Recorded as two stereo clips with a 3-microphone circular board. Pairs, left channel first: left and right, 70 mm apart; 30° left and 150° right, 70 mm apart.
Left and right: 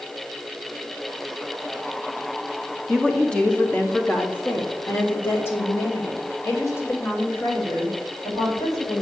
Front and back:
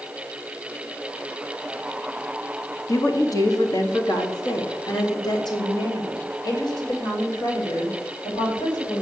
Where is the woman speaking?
5° left, 1.5 m; by 9.0 s 45° left, 4.5 m.